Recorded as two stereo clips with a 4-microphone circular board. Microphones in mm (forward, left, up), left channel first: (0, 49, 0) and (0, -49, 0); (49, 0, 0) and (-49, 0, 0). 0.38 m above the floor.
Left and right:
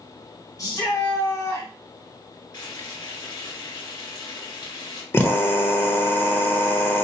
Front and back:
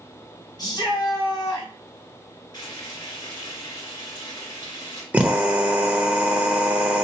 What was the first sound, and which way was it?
A shout, 40° left.